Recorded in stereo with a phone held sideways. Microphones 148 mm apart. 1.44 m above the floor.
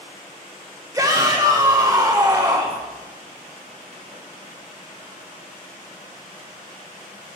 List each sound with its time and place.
0.9 s a shout: 20° right (ahead or behind), 1.1 m